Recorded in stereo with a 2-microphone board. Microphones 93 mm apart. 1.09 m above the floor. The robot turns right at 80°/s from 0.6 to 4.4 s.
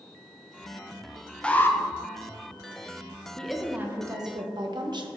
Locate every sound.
1.4 s an alarm: 10° left (ahead or behind), 0.8 m; by 1.8 s 30° left (ahead or behind), 0.8 m
3.4 s a woman speaking: 165° left, 1.1 m; by 5.1 s 110° right, 1.1 m